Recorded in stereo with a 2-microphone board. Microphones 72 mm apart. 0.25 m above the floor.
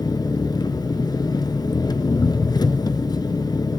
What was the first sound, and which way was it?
An engine running, 60° left (ahead or behind).